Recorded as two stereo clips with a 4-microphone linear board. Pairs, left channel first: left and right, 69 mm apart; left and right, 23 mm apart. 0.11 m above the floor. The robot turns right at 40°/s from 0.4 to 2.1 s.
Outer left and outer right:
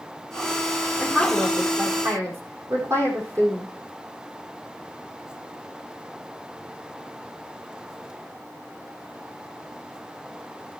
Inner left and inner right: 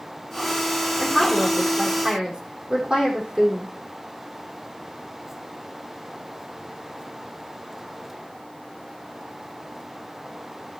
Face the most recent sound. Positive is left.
turn(degrees=-45)  # may be behind; listen again after turning